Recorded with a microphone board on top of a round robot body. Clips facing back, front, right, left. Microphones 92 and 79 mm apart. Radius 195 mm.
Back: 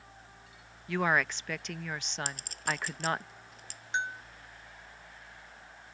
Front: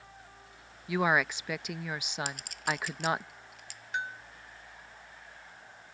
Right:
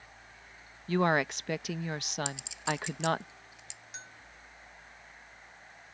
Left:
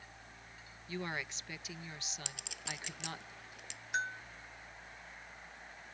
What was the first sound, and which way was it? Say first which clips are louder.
A woman speaking: front 1 dB, right 14 dB; 80° right.